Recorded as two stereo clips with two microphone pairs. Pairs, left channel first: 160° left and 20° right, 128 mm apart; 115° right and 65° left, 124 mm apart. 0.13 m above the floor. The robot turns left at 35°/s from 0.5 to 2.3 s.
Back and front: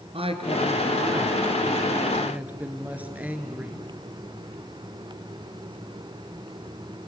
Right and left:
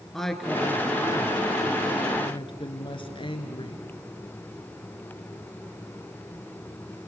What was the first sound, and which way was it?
A woman speaking, 30° right.